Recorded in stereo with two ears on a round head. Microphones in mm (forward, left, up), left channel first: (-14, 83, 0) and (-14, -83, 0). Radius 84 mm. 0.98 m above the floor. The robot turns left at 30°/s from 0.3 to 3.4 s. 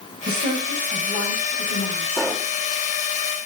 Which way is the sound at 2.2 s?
15° left (ahead or behind).